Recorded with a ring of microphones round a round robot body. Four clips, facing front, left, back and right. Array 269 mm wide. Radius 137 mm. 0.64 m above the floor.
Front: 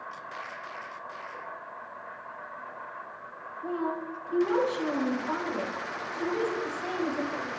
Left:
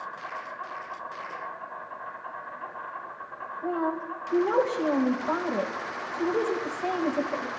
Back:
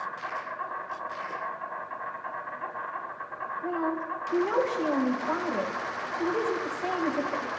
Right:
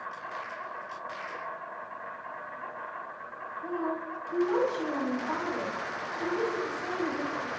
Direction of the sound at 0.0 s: 165° left.